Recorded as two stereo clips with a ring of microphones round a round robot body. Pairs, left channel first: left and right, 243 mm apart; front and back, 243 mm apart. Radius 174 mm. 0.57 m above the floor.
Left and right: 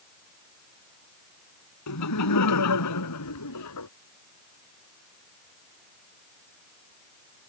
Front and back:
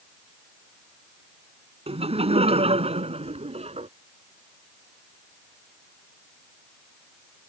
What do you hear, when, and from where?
1.9 s laughter: 115° left